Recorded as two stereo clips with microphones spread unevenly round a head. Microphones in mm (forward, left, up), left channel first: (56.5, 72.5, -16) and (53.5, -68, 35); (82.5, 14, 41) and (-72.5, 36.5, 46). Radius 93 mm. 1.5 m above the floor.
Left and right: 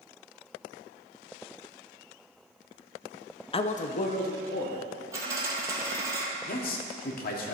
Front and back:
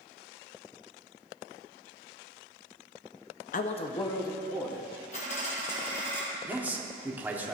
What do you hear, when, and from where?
3.5 s a man speaking: 30° left, 0.5 m; by 4.8 s 70° left, 1.5 m
5.1 s a dropped coin: 55° right, 2 m
6.5 s a man speaking: 90° left, 1.1 m